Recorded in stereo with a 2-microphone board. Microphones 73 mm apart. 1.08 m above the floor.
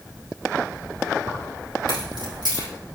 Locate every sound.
1.3 s keys jangling: 80° right, 4 m